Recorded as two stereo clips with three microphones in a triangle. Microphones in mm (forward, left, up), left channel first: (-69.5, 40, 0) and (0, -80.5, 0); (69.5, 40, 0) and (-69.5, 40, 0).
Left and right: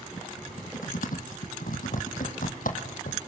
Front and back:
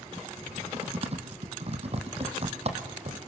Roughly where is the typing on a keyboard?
Behind left.